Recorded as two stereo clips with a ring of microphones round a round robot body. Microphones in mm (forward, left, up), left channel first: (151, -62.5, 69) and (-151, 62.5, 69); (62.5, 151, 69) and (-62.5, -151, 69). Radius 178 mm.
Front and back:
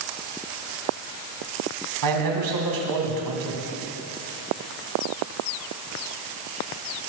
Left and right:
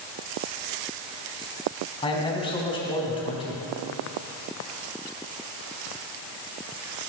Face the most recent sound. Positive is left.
turn(degrees=140)